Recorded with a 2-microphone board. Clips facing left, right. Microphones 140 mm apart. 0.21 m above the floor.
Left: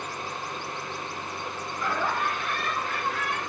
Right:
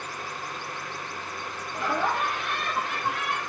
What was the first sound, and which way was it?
Laughter, 80° right.